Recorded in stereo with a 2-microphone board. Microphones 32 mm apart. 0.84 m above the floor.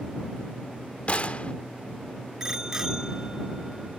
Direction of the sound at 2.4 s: 20° right (ahead or behind).